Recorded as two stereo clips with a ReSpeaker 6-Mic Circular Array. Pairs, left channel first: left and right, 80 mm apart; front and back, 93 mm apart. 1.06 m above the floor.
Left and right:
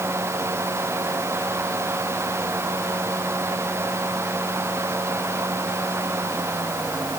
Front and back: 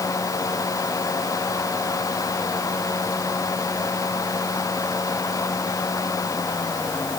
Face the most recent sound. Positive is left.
No sound to turn to.